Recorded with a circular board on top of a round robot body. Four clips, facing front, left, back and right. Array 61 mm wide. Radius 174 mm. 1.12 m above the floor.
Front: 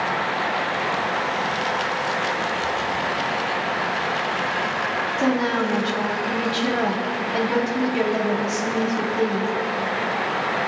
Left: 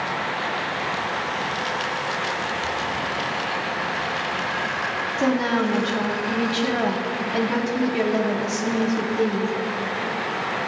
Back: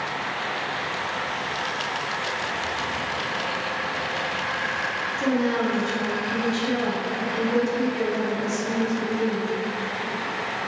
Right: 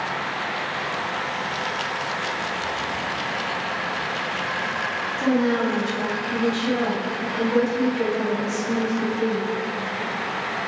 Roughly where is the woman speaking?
Ahead left.